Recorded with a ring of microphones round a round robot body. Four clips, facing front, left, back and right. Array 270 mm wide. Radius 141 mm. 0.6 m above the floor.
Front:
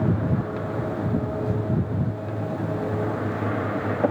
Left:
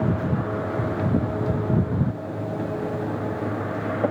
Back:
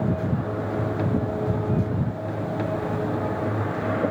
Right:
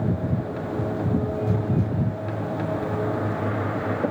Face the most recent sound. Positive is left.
No sound to turn to.